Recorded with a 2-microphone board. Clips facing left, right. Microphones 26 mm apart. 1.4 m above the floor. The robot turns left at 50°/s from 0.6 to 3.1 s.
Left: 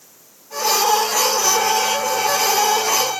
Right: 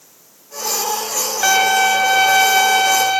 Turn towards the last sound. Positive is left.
turn(degrees=-135)